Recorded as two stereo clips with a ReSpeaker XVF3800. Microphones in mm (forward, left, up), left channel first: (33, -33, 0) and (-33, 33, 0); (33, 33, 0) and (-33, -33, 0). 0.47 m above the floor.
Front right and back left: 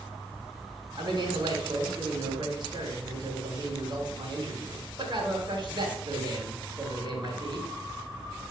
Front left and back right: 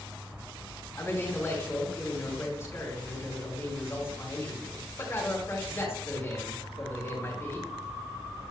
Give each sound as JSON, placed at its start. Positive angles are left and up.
{"t": 1.0, "sound": "a man speaking", "azimuth_deg": 105, "distance_m": 3.5}